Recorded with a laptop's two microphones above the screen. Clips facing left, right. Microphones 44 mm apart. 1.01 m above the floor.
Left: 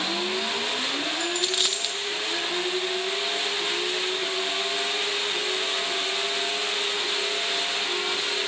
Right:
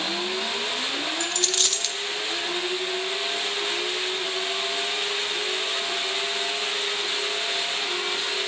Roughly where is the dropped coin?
Centre.